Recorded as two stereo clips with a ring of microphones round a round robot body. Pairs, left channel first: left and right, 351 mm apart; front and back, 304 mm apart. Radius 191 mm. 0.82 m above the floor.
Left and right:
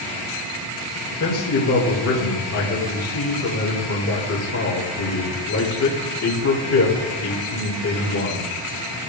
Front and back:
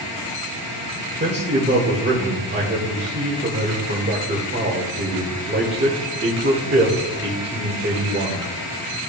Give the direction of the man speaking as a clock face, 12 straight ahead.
8 o'clock.